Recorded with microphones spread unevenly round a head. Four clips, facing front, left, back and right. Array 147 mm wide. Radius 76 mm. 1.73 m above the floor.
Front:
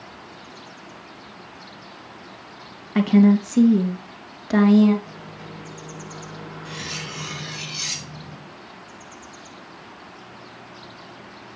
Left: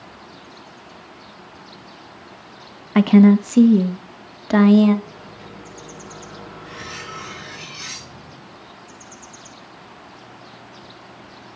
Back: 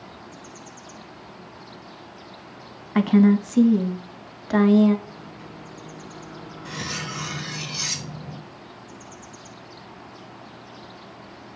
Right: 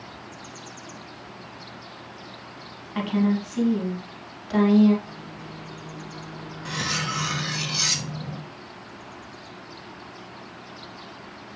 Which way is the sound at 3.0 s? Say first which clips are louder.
Left 12 dB, front 1 dB; 80° left.